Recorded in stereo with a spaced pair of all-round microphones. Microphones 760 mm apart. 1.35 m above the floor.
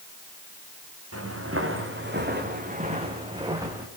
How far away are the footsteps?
About 5 m.